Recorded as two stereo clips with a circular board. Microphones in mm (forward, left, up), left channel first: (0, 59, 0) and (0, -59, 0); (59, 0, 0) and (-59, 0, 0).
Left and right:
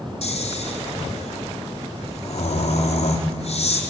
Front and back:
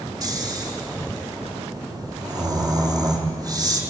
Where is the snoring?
120° left, 3.5 m.